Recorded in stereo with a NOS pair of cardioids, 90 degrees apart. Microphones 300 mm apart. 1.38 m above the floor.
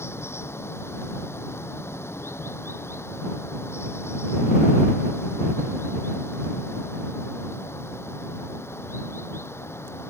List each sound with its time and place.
0.0 s running water: 10° left